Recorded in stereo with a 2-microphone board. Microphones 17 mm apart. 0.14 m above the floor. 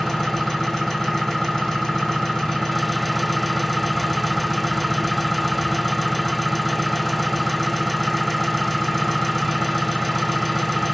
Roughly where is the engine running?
Left.